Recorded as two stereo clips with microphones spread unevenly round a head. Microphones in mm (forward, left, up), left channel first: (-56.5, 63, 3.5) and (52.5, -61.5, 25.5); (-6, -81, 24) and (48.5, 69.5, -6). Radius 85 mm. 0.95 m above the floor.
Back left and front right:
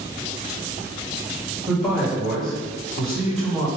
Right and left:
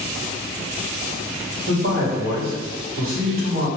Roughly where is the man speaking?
Ahead left.